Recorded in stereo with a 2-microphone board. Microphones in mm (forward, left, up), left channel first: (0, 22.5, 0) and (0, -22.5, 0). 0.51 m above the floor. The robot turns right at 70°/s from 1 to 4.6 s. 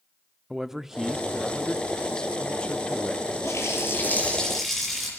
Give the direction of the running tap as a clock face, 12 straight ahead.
9 o'clock.